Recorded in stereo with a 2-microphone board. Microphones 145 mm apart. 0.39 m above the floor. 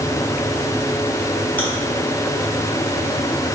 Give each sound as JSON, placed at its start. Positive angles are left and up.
{"t": 1.6, "sound": "chewing", "side_deg": 10, "distance_m": 3.0}